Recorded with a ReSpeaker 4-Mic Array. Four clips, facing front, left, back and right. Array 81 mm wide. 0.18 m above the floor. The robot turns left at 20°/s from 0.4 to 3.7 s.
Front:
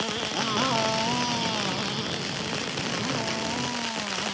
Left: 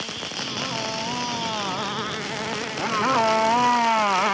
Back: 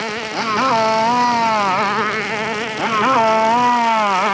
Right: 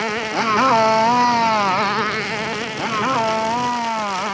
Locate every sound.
0.0 s a motorcycle: 120° right; by 4.3 s 175° left